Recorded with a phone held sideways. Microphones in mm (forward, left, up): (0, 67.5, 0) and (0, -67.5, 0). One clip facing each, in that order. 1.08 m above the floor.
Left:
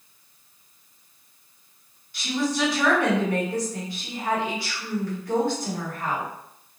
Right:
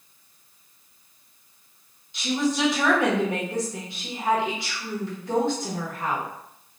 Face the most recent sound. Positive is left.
turn(degrees=-20)  # may be behind; listen again after turning